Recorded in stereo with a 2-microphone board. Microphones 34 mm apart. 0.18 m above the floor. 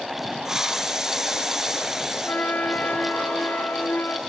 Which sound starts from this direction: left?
A flute, at 2.2 s.